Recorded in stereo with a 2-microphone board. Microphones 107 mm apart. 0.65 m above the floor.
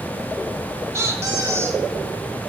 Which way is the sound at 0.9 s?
25° right (ahead or behind).